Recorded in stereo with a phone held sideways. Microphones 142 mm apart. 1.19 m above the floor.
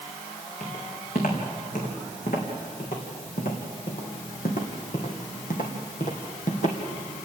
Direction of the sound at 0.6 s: 70° left (ahead or behind).